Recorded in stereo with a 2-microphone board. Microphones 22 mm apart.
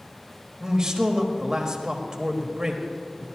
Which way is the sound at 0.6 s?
25° right (ahead or behind).